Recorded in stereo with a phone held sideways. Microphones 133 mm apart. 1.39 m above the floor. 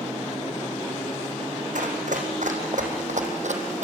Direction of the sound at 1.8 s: 75° right (ahead or behind).